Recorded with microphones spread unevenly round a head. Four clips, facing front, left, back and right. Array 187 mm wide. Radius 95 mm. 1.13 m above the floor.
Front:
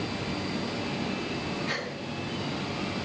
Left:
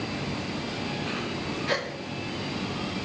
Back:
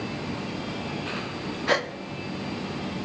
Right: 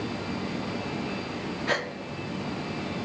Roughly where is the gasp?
Behind.